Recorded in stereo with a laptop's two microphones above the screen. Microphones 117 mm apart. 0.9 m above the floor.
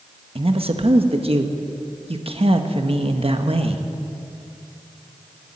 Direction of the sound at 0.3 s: 55° right (ahead or behind).